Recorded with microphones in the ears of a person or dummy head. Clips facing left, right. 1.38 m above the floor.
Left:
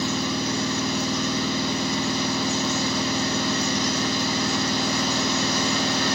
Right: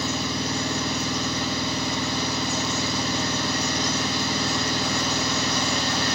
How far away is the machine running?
About 1.6 m.